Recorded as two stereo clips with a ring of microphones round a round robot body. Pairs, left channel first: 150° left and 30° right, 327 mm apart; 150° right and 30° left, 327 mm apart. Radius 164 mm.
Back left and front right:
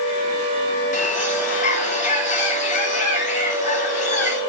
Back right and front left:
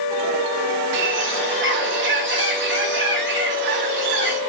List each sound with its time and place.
0.9 s a bird: 85° left, 1.5 m